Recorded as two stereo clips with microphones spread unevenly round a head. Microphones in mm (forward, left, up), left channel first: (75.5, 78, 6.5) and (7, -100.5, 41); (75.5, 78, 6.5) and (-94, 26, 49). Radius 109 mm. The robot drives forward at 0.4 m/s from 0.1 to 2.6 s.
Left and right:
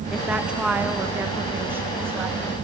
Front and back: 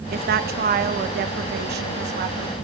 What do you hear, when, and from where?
0.1 s a woman speaking: 160° left, 1.3 m; by 2.5 s 170° left, 2 m